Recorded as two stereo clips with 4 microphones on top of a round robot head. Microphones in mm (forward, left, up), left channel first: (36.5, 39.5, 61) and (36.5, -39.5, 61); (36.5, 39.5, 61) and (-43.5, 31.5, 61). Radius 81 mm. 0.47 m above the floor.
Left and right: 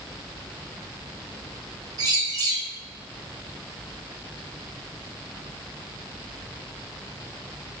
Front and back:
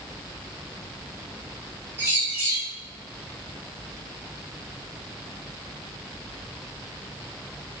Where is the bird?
110° right, 2.5 m.